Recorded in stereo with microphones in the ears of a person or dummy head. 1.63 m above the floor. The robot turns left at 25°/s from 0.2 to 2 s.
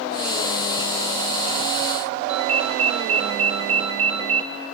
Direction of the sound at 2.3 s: 35° right (ahead or behind).